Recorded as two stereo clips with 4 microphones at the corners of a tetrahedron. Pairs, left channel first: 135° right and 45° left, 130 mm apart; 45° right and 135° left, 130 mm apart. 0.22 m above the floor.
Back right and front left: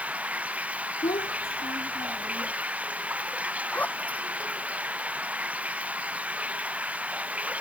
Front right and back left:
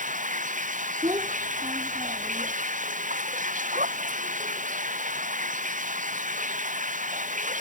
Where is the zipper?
145° left.